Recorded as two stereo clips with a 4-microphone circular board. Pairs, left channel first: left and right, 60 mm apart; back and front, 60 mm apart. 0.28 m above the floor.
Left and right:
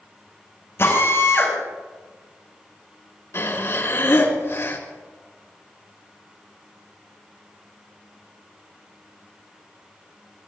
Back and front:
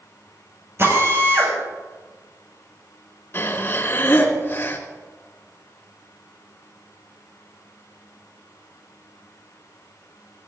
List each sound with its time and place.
0.8 s a drill: 45° left, 7 m
3.3 s breathing: 130° left, 2.5 m